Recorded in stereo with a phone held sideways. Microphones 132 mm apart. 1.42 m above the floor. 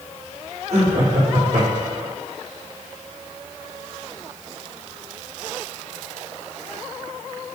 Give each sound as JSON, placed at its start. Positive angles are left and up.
{"t": 0.7, "sound": "laughter", "side_deg": -55, "distance_m": 4.0}